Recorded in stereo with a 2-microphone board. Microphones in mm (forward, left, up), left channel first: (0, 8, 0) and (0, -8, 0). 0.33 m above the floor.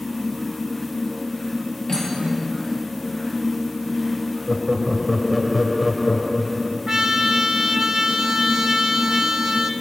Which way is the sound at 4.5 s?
20° right (ahead or behind).